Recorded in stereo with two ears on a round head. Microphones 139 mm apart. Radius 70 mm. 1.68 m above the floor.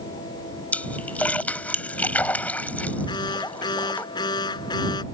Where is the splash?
10° left (ahead or behind).